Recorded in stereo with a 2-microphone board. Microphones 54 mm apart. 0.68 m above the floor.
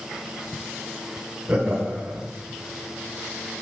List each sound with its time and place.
1.5 s laughter: 25° right (ahead or behind), 4.5 m